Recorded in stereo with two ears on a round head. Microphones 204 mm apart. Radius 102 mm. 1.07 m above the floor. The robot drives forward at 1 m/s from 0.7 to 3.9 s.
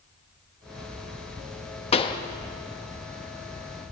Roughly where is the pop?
Left.